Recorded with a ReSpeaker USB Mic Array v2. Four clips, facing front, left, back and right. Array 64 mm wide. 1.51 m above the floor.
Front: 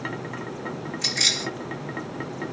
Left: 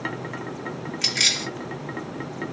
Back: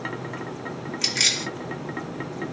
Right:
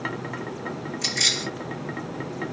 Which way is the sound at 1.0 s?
120° left.